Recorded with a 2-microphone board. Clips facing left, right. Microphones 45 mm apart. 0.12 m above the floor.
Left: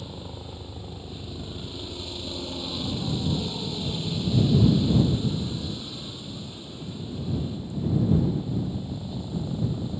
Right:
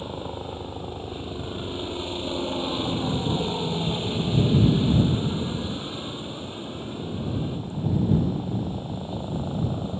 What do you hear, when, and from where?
0.0 s a helicopter: 35° right (ahead or behind)